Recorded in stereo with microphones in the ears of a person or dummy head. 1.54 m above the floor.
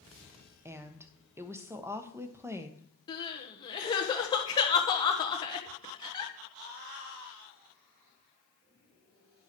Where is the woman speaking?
10° right (ahead or behind), 1.1 m.